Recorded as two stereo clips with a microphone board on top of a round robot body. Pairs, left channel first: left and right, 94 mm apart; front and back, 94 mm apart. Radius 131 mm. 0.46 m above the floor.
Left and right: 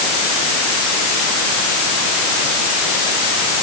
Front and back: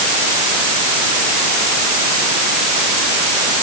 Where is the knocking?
I don't hear knocking.